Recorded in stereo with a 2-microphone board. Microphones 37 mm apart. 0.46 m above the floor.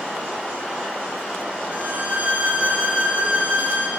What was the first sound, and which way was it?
A violin, 45° right (ahead or behind).